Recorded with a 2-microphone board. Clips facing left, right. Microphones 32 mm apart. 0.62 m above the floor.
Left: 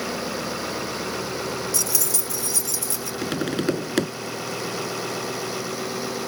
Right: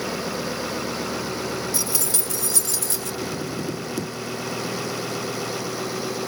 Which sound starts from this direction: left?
Tapping, at 3.2 s.